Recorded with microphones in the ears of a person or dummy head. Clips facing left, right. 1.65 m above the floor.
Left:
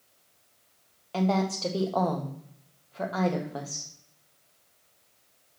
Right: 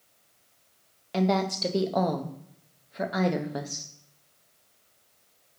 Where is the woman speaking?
20° right (ahead or behind), 0.6 m.